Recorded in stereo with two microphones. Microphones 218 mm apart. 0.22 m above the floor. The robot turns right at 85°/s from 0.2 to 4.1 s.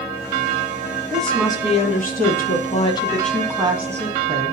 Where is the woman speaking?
10° right, 2 m; by 4.5 s 115° right, 2 m.